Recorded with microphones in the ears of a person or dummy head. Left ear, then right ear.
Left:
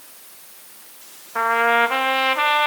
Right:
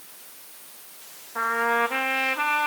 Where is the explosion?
I don't hear an explosion.